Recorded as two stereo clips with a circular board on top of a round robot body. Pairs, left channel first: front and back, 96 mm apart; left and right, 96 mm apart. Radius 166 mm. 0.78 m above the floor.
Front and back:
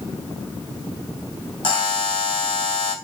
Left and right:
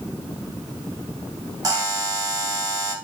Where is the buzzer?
40° right, 3.5 m.